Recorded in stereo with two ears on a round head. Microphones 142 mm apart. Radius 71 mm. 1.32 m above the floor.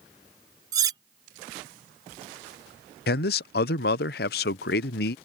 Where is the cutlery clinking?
20° right (ahead or behind).